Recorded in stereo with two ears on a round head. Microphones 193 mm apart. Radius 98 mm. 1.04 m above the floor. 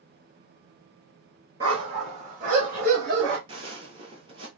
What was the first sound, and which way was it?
A dog barking, 20° right (ahead or behind).